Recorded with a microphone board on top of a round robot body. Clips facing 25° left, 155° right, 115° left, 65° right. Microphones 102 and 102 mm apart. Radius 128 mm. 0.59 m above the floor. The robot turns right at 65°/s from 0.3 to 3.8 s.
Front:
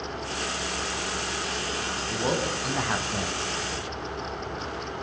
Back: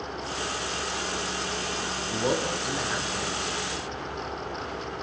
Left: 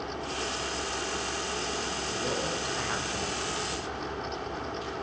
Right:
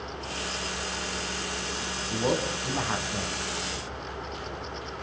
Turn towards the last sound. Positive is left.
turn(degrees=50)